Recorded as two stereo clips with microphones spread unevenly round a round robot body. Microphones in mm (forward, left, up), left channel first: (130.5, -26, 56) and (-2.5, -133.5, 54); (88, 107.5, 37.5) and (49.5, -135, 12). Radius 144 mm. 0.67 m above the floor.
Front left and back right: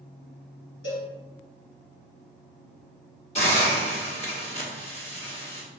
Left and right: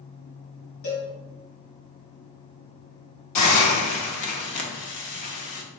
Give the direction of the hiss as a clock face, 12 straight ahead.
9 o'clock.